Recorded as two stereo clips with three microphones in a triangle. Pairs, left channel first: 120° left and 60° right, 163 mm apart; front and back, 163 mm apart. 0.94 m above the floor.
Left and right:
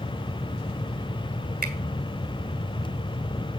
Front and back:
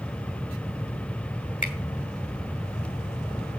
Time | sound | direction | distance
1.6 | a finger snap | 35° right | 2.5 m